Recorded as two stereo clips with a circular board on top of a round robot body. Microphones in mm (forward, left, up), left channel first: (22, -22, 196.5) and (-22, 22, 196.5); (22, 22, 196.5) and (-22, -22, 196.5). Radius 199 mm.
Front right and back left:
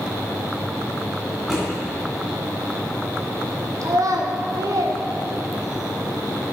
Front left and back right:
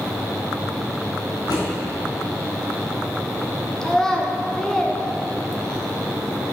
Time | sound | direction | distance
1.5 | a drawer | 50° left | 3 m
3.8 | a child speaking | 125° left | 1.5 m